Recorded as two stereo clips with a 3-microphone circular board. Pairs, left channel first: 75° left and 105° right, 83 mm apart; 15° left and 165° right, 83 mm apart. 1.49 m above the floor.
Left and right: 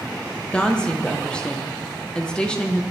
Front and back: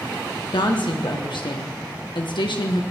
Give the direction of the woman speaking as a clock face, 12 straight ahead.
12 o'clock.